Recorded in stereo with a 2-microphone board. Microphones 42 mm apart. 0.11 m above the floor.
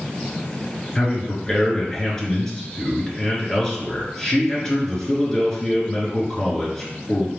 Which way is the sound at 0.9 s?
20° left (ahead or behind).